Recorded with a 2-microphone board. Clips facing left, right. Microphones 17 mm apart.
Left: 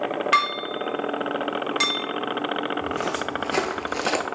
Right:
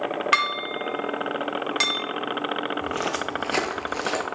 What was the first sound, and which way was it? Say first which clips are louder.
Dishes clattering: left 1 dB; 15° right (ahead or behind).